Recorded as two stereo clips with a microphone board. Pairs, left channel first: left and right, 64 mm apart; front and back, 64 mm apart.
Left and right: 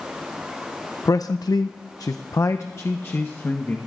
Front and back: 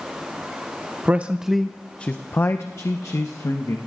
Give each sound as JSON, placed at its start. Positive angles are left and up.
{"t": 1.1, "sound": "a man speaking", "azimuth_deg": 120, "distance_m": 0.7}